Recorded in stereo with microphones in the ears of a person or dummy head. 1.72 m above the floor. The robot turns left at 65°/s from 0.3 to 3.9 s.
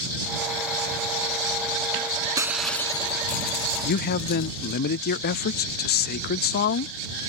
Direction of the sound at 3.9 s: 50° left (ahead or behind).